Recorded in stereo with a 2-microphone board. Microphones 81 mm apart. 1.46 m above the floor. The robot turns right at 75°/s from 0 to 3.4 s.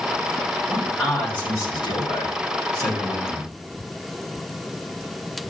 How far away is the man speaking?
About 4 m.